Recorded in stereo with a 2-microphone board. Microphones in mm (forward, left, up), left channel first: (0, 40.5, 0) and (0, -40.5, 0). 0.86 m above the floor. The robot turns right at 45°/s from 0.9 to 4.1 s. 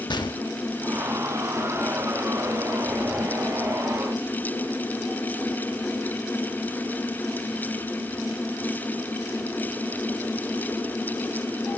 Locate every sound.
0.1 s a gunshot: 65° left (ahead or behind), 1.0 m